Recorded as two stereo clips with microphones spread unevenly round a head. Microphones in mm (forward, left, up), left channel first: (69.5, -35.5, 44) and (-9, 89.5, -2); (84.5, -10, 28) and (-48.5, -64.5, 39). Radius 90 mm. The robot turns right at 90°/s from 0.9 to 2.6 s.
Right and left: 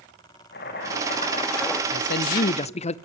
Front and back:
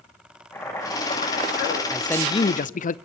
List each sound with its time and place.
0.5 s boiling: 50° right, 7 m; by 1.8 s 30° left, 7 m
1.9 s a man speaking: 75° right, 0.6 m; by 3.0 s 10° right, 0.6 m